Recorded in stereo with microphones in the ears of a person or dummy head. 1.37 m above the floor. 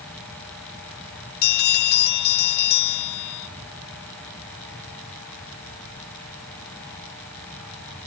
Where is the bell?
45° left (ahead or behind), 0.6 m.